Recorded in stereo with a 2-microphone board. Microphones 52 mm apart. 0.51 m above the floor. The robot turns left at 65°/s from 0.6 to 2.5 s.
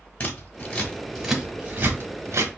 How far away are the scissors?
About 1.4 m.